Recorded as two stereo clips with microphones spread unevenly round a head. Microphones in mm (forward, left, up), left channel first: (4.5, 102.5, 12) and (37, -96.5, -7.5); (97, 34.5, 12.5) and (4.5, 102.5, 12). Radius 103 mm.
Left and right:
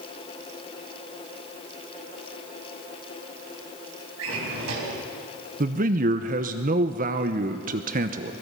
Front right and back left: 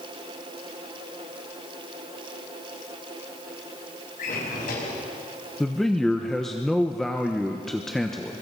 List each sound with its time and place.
4.2 s a drawer: 65° right, 5.5 m
5.6 s a man speaking: 125° right, 0.9 m